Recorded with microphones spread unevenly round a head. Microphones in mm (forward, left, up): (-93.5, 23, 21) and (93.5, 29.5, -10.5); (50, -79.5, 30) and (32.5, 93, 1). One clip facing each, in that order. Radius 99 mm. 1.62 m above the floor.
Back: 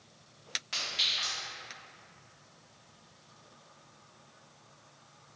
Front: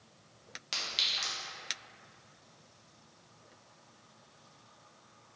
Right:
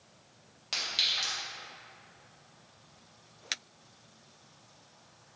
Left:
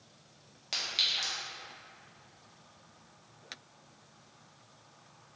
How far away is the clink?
About 0.9 m.